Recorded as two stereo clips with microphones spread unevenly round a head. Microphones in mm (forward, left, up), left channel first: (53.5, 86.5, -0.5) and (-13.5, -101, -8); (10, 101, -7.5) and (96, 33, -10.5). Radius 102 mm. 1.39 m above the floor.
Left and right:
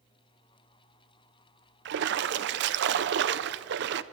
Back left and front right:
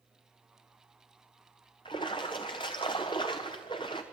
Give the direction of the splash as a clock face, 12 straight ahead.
5 o'clock.